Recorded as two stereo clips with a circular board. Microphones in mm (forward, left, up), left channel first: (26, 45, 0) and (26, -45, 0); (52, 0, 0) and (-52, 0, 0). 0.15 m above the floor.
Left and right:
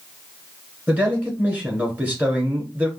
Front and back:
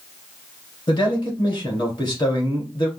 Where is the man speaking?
25° right, 2.0 m.